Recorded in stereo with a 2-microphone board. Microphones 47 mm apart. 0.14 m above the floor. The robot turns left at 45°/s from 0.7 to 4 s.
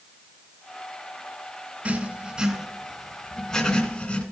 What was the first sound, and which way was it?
Writing, 25° right (ahead or behind).